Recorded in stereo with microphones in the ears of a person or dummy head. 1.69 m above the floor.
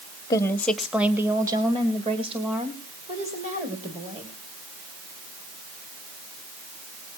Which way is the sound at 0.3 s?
20° left (ahead or behind).